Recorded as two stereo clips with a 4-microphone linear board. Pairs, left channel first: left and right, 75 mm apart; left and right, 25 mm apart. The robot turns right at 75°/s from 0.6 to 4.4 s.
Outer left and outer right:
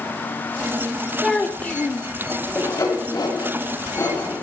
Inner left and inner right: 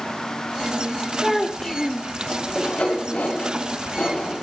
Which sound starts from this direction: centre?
A child speaking, at 1.2 s.